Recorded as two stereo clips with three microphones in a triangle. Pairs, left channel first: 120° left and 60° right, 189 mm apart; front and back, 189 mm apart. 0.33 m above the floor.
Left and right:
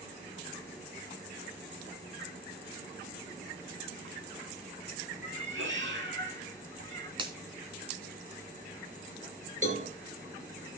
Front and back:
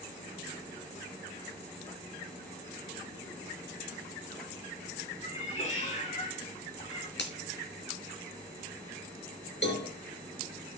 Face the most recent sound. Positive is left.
turn(degrees=-10)